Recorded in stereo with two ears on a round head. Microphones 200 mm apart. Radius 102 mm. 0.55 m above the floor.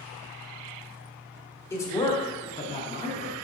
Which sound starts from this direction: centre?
A man speaking, at 1.7 s.